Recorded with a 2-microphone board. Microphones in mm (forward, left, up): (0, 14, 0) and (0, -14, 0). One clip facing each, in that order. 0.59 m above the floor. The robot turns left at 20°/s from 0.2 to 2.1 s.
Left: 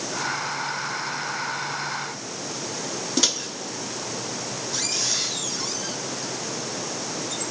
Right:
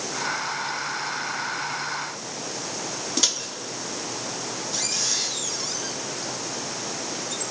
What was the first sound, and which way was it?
A microwave, centre (ahead or behind).